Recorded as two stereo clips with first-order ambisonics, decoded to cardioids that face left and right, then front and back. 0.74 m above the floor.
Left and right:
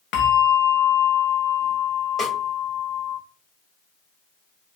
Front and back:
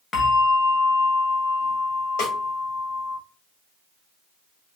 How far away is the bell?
About 0.6 m.